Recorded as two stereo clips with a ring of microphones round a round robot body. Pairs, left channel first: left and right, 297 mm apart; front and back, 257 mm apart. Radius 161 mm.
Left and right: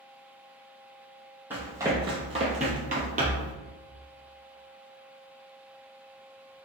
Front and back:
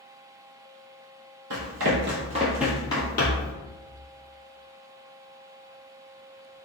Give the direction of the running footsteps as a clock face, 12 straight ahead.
6 o'clock.